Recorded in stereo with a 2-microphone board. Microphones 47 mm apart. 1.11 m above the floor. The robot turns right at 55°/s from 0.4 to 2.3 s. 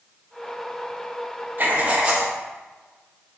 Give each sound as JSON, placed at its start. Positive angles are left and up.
{"t": 1.6, "sound": "writing", "azimuth_deg": -50, "distance_m": 1.3}